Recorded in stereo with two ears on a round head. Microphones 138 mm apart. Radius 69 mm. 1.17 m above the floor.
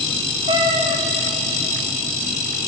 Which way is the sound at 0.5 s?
35° right (ahead or behind).